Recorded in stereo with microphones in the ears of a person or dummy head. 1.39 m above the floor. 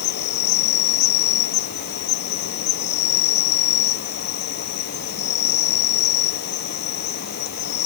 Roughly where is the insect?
Left.